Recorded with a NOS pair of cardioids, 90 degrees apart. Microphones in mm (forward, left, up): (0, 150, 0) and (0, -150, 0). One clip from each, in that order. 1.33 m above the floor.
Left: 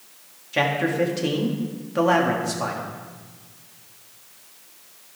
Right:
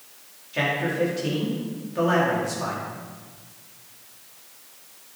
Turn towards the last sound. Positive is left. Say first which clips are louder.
# left 2 dB
turn(degrees=45)